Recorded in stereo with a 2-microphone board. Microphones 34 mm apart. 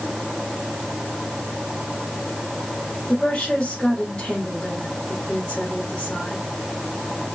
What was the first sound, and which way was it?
A woman speaking, 25° left (ahead or behind).